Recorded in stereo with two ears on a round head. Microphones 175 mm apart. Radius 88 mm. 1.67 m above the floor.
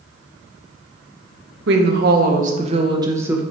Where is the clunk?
I don't hear a clunk.